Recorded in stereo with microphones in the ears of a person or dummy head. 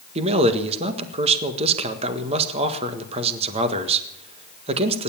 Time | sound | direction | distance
0.1 | a man speaking | 35° right (ahead or behind) | 1.6 m